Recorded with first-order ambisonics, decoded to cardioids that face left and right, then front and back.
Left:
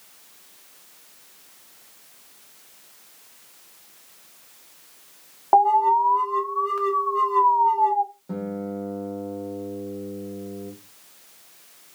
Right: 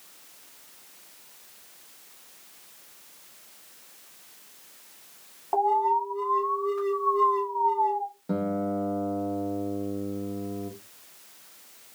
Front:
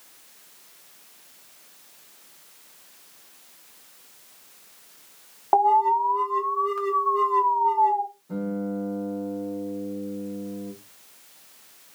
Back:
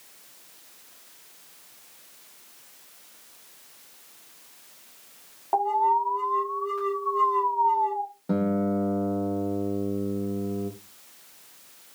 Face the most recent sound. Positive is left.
turn(degrees=-160)